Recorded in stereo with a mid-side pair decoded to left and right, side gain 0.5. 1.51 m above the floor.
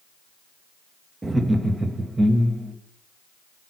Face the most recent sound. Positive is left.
turn(degrees=-20)